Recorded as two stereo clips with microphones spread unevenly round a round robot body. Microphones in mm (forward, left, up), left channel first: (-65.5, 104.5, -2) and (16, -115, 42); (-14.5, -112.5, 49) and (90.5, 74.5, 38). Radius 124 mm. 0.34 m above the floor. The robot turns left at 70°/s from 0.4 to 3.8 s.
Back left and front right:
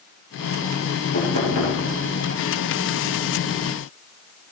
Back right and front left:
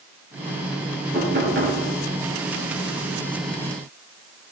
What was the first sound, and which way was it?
Knocking, 130° left.